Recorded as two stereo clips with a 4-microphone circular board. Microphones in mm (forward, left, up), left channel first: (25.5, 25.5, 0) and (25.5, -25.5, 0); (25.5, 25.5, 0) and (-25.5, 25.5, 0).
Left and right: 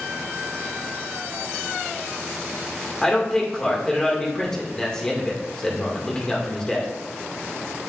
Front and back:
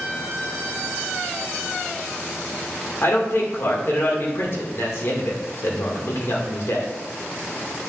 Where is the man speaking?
15° left, 2.0 m.